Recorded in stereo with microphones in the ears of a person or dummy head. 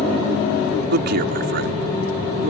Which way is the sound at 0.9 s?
60° right (ahead or behind).